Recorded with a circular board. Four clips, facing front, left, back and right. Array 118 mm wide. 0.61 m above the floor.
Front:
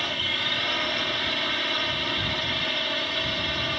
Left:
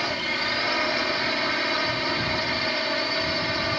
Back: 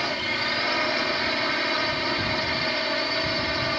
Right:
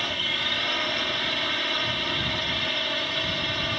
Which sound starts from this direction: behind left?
A drone, at 0.0 s.